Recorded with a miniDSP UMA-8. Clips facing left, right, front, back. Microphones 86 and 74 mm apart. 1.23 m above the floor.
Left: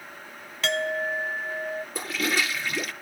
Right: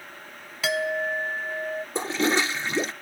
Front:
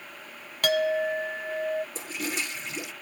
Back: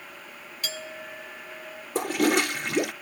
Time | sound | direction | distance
0.6 | a clink | 5° right | ?
1.9 | a toilet flushing | 150° right | ?